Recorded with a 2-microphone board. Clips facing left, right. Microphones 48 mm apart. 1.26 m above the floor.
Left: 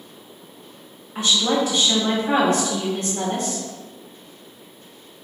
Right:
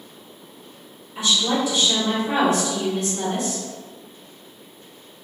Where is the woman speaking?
45° left (ahead or behind), 1.6 m.